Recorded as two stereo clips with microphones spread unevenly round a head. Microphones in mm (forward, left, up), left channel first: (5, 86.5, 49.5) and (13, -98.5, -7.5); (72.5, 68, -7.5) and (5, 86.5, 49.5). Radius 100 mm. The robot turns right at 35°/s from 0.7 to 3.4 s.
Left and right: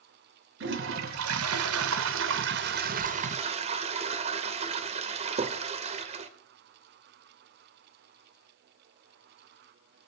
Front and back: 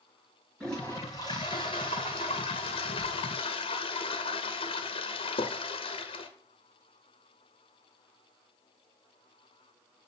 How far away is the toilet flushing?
About 1.2 m.